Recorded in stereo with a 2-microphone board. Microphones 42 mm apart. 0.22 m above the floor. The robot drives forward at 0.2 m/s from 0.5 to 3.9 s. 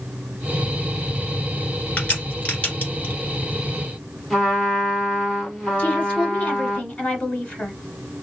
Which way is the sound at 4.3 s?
15° left (ahead or behind).